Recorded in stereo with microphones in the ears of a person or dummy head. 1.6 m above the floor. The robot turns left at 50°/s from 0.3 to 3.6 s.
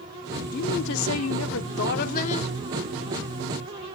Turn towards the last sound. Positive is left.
turn(degrees=-25)